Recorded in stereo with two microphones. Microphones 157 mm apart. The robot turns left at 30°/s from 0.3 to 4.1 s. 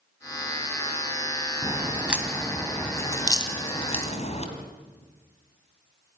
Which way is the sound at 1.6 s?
20° right (ahead or behind).